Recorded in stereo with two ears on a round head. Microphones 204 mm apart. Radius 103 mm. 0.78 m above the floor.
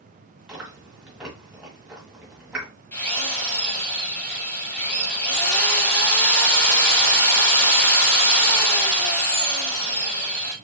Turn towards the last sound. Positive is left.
turn(degrees=10)  # may be behind; listen again after turning